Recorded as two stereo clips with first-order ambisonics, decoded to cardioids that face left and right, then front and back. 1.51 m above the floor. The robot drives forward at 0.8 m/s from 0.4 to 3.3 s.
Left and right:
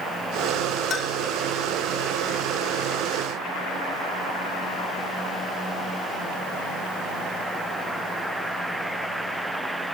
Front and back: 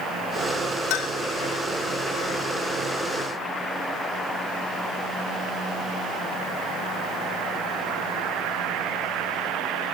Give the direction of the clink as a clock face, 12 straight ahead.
11 o'clock.